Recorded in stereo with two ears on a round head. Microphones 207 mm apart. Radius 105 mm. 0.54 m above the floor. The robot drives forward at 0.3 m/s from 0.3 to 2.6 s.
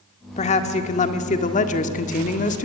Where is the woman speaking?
30° left (ahead or behind), 1.6 m; by 2.7 s 35° left (ahead or behind), 1.4 m.